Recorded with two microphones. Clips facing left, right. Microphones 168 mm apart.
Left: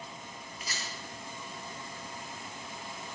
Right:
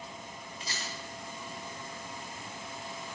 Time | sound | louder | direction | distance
0.6 | a rattle | right 1 dB | 30° right (ahead or behind) | 2 m